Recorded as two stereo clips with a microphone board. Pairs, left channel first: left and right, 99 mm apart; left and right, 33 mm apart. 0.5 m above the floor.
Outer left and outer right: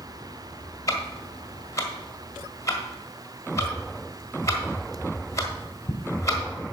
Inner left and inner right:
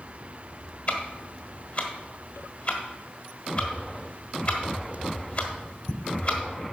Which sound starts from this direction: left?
Ticking, at 0.9 s.